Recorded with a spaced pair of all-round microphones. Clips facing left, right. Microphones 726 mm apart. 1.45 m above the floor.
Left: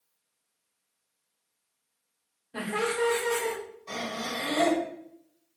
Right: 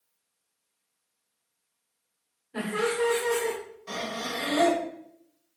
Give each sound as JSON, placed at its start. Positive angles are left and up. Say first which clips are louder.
{"t": 2.5, "sound": "laughter", "louder": "right 2 dB", "side_deg": 20, "distance_m": 1.2}
{"t": 3.9, "sound": "breathing", "louder": "right 1 dB", "side_deg": -45, "distance_m": 1.0}